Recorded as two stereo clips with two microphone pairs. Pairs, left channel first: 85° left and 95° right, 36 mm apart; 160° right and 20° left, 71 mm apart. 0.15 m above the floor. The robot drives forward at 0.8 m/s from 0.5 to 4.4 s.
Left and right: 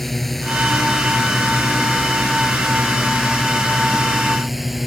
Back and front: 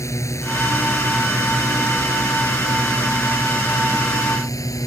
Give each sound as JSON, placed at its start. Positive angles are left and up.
{"t": 0.0, "sound": "a drone", "azimuth_deg": 170}